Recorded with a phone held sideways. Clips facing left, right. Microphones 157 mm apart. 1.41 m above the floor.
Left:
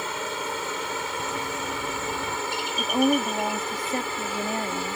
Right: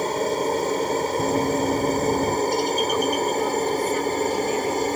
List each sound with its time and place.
0.0 s a helicopter: 40° right (ahead or behind)
1.2 s running footsteps: 50° right (ahead or behind); by 2.4 s 40° right (ahead or behind)
2.8 s a woman speaking: 40° left (ahead or behind)